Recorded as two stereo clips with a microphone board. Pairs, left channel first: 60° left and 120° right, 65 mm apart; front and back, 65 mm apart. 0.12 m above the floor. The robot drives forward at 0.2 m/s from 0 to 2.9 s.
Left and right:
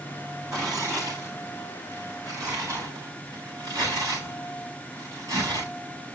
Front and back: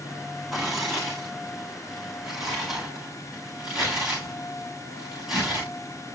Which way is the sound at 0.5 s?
95° right.